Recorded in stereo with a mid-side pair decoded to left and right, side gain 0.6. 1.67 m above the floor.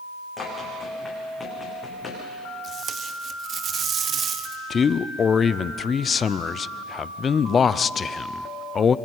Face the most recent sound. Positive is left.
turn(degrees=35)